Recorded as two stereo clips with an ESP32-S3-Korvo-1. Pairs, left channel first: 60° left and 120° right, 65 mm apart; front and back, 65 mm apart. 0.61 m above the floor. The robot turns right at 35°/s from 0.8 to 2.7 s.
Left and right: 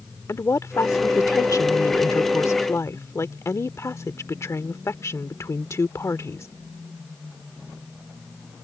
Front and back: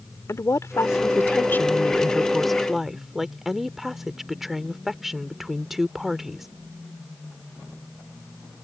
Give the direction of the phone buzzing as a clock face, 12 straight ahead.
No phone buzzing in this recording.